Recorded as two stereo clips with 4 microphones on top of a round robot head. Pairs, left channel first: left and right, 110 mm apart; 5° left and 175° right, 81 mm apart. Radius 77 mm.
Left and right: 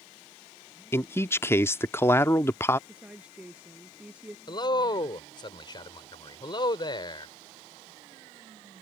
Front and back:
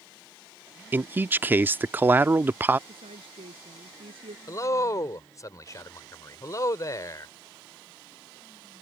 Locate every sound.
0.9 s a man speaking: 140° left
2.9 s a woman speaking: 170° right
4.5 s a man speaking: 50° left